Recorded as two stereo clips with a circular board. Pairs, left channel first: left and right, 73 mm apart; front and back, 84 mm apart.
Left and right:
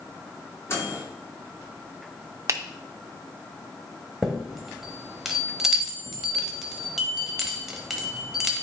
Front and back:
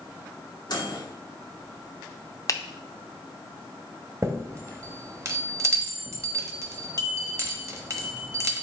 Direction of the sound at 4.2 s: 175° right.